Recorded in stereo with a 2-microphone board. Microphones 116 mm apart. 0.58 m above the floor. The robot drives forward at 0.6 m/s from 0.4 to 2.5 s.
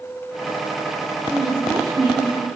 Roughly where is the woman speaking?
Centre.